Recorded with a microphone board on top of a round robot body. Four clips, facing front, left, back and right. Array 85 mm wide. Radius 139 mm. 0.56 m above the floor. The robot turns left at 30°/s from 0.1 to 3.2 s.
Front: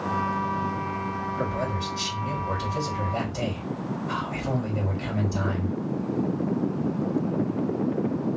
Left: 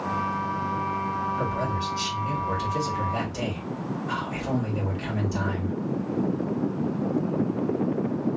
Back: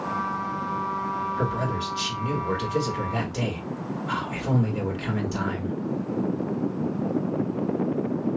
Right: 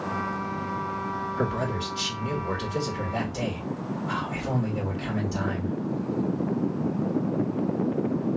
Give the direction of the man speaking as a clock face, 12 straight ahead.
4 o'clock.